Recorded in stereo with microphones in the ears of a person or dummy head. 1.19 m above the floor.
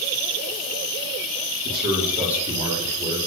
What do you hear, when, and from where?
1.6 s a man speaking: 55° right (ahead or behind), 3.5 m; by 3.2 s 40° right (ahead or behind), 4.5 m